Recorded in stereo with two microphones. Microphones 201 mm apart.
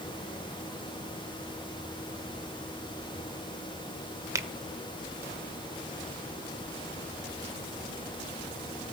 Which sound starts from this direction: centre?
A finger snap, at 4.3 s.